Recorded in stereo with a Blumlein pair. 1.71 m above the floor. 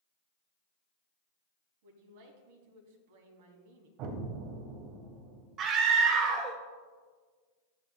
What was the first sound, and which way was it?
A man speaking, 50° right.